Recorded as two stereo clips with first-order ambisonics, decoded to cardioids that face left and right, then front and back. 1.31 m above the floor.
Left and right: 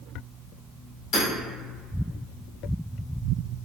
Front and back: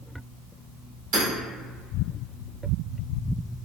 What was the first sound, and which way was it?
Hammering, 135° left.